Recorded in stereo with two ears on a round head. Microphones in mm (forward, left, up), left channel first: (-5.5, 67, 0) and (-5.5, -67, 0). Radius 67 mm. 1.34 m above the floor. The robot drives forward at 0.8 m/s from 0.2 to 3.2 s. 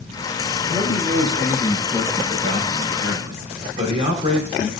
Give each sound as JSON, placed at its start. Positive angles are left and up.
{"t": 0.7, "sound": "a man speaking", "side_deg": -25, "distance_m": 5.5}